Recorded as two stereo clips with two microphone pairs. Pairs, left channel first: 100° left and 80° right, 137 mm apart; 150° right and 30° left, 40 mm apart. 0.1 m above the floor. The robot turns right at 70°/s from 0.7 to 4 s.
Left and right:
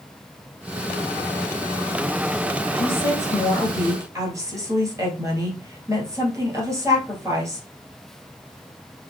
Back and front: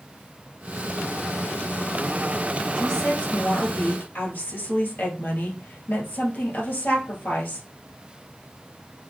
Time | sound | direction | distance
2.8 | a woman speaking | 130° left | 2.5 m